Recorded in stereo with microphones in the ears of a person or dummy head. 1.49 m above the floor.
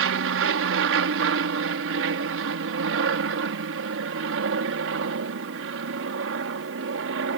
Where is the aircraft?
65° right (ahead or behind).